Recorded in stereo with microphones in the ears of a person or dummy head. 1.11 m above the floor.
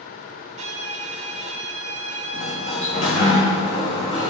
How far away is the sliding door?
About 1.1 m.